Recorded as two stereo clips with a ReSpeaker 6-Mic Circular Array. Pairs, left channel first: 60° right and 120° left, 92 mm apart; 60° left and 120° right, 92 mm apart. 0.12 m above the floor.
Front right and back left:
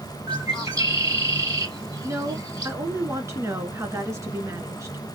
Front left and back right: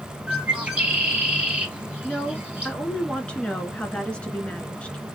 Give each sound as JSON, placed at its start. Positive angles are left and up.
{"t": 0.3, "sound": "a bird", "azimuth_deg": 165, "distance_m": 1.4}
{"t": 2.0, "sound": "a woman speaking", "azimuth_deg": 125, "distance_m": 1.3}